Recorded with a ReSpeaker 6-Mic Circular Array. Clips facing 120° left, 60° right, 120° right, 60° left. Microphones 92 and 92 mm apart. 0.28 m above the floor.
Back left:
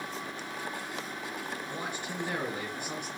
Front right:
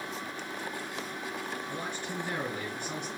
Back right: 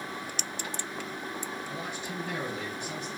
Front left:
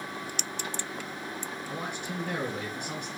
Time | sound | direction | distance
1.7 | a man speaking | 45° left | 3.5 m